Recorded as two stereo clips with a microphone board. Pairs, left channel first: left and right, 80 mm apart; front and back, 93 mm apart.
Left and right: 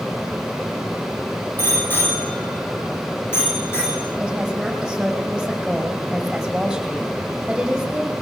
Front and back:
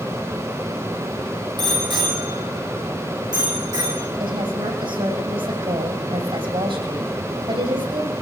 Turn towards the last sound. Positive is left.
turn(degrees=-175)